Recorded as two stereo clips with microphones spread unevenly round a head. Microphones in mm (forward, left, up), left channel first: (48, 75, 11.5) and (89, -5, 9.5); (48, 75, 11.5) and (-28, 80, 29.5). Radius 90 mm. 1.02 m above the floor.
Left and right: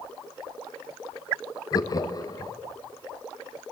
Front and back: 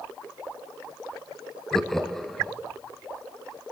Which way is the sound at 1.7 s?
75° left.